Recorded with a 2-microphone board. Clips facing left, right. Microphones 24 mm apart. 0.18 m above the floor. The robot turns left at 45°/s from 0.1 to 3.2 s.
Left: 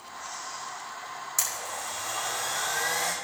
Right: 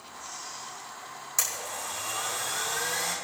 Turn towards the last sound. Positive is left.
turn(degrees=110)